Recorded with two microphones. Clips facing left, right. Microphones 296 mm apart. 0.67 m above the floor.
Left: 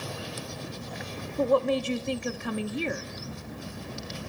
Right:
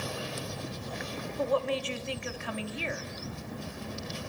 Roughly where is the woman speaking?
Left.